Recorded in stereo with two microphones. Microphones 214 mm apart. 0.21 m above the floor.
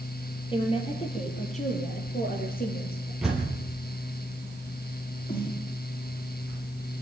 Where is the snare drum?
45° left (ahead or behind), 6.5 m.